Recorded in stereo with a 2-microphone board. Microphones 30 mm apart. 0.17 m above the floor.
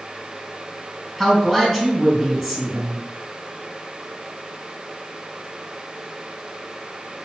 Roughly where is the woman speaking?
Centre.